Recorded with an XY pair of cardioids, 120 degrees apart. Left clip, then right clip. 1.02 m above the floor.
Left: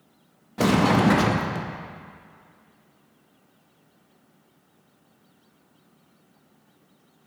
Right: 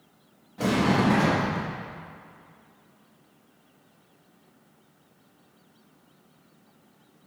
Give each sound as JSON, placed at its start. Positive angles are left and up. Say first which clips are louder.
{"t": 0.6, "sound": "a sliding door", "louder": "left 4 dB", "azimuth_deg": 60, "distance_m": 0.7}